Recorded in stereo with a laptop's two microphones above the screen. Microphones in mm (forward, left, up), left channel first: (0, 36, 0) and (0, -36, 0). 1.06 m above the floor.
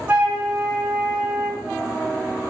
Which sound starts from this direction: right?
A flute, at 0.1 s.